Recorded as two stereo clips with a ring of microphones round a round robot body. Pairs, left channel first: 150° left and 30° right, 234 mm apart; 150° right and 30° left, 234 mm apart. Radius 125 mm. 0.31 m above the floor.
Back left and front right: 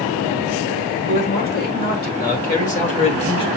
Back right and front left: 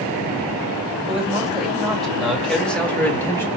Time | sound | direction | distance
1.1 | a man speaking | 115° left | 2 m